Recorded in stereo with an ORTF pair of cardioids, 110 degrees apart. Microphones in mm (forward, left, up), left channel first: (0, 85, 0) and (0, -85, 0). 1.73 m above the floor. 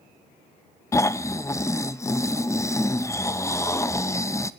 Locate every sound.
0.9 s snoring: 15° left, 0.6 m